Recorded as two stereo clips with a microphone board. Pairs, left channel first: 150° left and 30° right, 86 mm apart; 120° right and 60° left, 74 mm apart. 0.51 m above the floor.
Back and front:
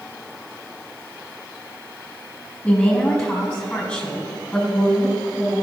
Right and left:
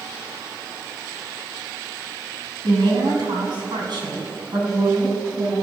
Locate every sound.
2.6 s a woman speaking: 70° left, 3.5 m; by 5.5 s 65° left, 6 m